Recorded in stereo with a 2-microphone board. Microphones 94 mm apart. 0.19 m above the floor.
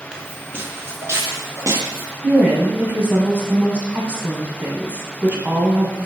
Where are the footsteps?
5° right (ahead or behind), 1.2 m; by 2.1 s 40° right (ahead or behind), 2.5 m.